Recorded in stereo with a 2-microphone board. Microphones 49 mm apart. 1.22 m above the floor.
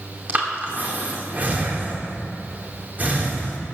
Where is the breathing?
35° right (ahead or behind), 2 m.